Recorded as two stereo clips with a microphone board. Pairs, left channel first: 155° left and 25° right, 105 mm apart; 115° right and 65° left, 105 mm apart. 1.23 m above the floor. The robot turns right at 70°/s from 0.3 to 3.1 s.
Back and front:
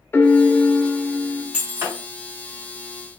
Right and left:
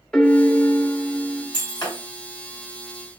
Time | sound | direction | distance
0.1 | a piano | straight behind | 0.6 m
1.5 | breaking glass | 95° right | 1.8 m